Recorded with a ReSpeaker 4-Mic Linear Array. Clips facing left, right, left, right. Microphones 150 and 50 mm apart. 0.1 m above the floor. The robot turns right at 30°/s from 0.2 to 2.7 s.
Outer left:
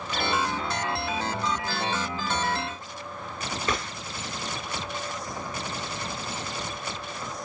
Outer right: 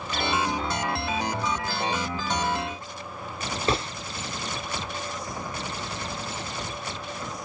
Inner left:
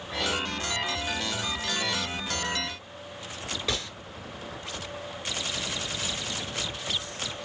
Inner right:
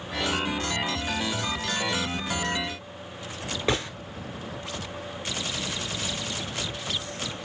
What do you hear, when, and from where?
3.7 s a gunshot: 30° right (ahead or behind), 0.6 m